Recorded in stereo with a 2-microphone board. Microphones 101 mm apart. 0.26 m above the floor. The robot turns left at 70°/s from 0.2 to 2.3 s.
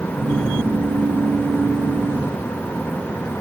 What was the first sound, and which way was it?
Only background noise.